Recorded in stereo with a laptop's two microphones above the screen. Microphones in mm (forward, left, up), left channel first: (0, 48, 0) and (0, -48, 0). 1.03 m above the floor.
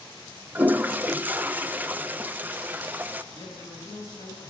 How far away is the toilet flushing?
About 0.7 m.